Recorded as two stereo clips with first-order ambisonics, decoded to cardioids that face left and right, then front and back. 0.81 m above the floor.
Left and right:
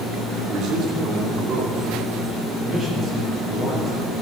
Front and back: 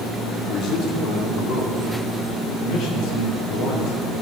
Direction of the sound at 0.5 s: 50° right.